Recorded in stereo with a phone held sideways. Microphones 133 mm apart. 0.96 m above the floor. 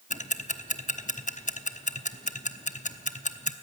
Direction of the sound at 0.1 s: 70° left (ahead or behind).